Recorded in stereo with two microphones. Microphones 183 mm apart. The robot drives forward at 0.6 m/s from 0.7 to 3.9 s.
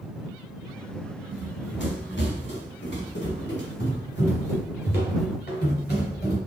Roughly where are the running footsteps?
Left.